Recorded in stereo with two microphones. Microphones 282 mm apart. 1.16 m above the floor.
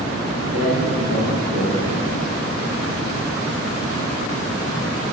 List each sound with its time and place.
0.5 s a man speaking: 75° right (ahead or behind), 4 m